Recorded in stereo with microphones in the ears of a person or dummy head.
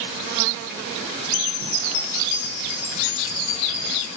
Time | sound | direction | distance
1.3 | a chime | 60° left (ahead or behind) | 9.5 m